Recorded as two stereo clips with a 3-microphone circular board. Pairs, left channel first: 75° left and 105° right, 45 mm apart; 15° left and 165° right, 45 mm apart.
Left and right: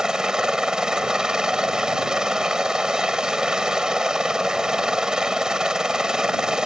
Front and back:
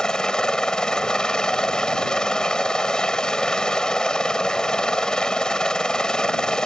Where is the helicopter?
40° right.